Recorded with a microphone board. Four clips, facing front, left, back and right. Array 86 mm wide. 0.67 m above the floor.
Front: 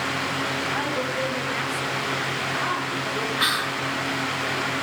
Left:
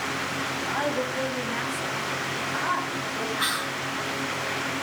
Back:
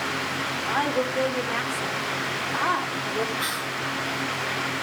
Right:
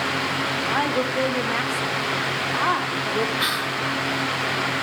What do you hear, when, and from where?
0.7 s a woman speaking: 115° right, 1.6 m
3.4 s whispering: 15° right, 1.1 m